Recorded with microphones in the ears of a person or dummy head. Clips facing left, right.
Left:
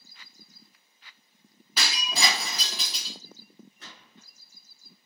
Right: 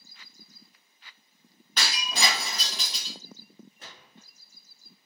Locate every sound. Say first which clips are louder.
1.8 s breaking glass: even; 10° left (ahead or behind), 1.1 m
3.8 s a gunshot: right 1 dB; 35° right (ahead or behind), 1.6 m